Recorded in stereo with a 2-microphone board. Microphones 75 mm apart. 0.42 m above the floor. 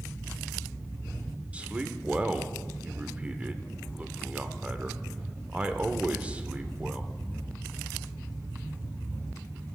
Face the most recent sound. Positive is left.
turn(degrees=-15)  # may be behind; listen again after turning